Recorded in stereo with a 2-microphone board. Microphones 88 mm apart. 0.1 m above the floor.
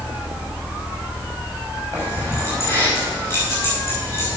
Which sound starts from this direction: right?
Keys jangling, at 1.9 s.